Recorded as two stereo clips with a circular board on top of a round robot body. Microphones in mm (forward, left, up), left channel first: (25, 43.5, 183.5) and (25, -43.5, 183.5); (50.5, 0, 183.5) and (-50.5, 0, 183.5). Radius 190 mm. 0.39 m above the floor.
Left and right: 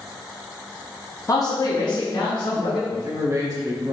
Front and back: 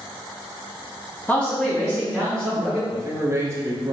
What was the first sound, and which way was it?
A man speaking, 65° left.